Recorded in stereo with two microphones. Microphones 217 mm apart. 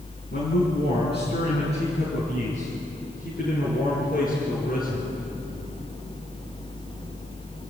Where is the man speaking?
55° left (ahead or behind), 5.5 m; by 5.1 s 45° left (ahead or behind), 9 m.